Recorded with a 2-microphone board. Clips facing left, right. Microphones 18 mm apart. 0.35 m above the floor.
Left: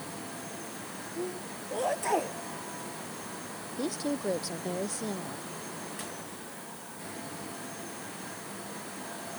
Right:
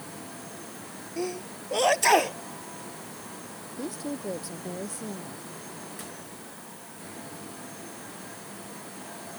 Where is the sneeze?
60° right (ahead or behind).